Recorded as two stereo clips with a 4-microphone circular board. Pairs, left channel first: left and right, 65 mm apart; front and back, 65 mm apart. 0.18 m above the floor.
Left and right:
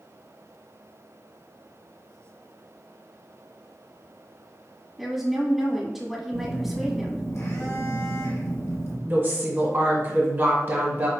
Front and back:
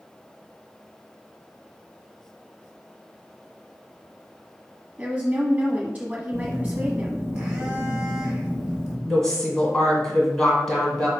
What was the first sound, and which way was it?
A woman speaking, 175° right.